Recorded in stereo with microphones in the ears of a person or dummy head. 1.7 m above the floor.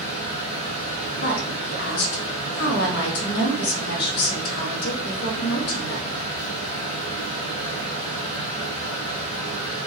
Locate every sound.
0.0 s a fan: 35° left (ahead or behind), 0.9 m
1.2 s a woman speaking: 55° left (ahead or behind), 0.9 m